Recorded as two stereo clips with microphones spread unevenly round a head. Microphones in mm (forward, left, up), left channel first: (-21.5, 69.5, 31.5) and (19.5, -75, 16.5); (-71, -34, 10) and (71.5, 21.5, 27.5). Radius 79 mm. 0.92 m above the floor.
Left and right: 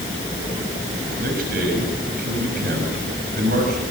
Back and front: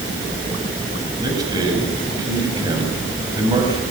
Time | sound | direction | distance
1.2 | a man speaking | 45° right | 6 m